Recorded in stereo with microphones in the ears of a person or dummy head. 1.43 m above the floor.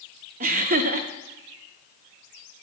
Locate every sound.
0.4 s laughter: 45° right (ahead or behind), 0.6 m